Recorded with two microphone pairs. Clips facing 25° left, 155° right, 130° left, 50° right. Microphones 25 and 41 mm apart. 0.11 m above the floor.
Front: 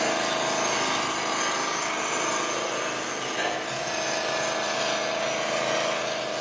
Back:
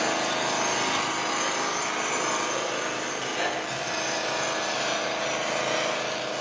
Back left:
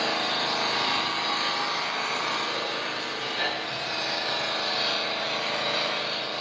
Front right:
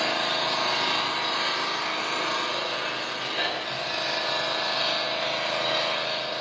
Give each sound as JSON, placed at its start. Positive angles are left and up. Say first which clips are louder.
{"t": 0.0, "sound": "an engine running", "louder": "front 1 dB, front right 1 dB", "azimuth_deg": -75, "distance_m": 2.5}